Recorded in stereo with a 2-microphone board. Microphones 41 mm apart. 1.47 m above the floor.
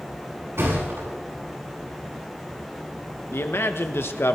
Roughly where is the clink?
I don't hear a clink.